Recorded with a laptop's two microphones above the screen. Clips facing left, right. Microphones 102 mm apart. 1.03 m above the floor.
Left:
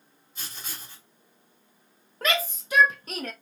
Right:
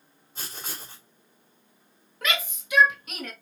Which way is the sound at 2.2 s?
35° left (ahead or behind).